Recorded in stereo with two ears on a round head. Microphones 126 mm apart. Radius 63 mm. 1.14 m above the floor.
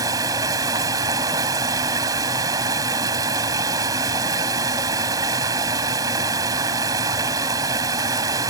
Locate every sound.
0.0 s running water: 25° right (ahead or behind)